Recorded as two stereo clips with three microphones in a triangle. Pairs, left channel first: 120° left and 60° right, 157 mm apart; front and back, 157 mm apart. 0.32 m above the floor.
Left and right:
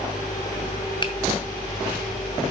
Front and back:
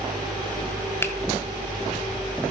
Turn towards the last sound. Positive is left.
turn(degrees=70)